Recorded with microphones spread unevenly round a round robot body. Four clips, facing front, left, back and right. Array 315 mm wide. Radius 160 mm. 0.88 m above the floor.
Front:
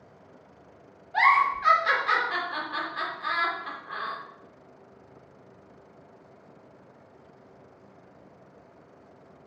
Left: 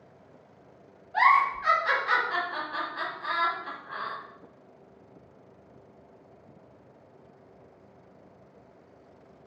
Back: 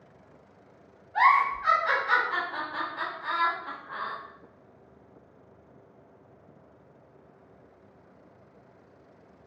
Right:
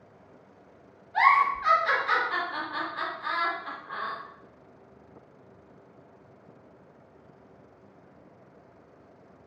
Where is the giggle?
25° left, 0.9 m.